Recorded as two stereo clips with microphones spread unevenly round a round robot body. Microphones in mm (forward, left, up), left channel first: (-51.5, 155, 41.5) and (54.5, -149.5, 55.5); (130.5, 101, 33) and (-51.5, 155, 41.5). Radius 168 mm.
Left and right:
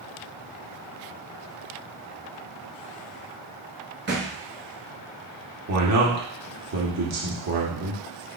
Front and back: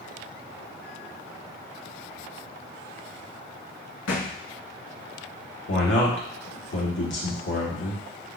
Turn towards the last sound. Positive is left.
turn(degrees=-30)